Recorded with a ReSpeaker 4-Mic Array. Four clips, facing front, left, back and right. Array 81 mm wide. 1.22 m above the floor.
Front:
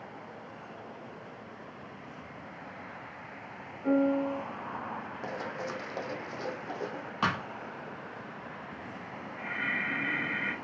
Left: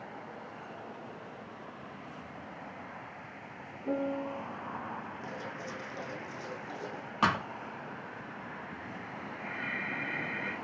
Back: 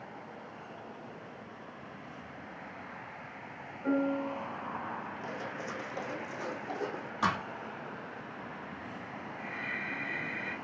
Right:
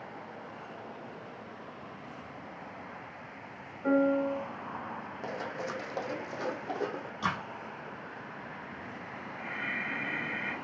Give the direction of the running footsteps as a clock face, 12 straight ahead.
1 o'clock.